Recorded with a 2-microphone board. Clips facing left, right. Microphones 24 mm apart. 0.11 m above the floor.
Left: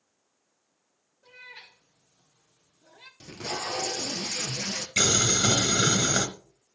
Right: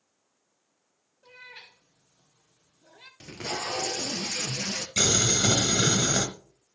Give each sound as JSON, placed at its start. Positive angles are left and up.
{"t": 1.2, "sound": "a cat meowing", "side_deg": -15, "distance_m": 3.5}
{"t": 3.2, "sound": "tape being pulled", "side_deg": -30, "distance_m": 1.4}
{"t": 5.0, "sound": "boiling", "side_deg": 25, "distance_m": 1.8}